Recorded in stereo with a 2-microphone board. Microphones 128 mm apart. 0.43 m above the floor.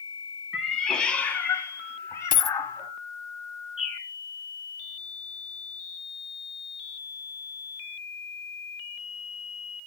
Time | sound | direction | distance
0.5 | a cat meowing | centre (ahead or behind) | 1.5 m
2.3 | a dropped coin | 80° left | 0.6 m
3.8 | a bird | 75° right (ahead or behind) | 6 m